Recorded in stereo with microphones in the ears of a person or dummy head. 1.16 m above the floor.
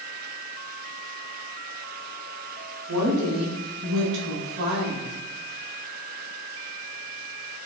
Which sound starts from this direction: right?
A woman speaking, at 2.9 s.